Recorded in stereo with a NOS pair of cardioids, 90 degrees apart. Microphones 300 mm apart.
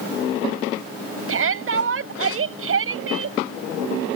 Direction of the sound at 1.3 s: 45° right.